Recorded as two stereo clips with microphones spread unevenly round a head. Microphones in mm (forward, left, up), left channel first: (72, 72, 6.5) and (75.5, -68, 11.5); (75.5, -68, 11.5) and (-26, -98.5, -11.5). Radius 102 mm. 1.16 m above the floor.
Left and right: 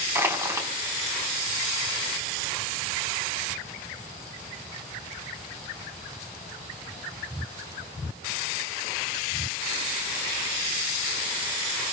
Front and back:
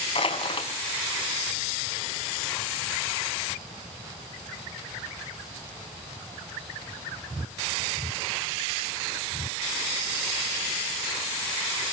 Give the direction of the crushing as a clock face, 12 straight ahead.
1 o'clock.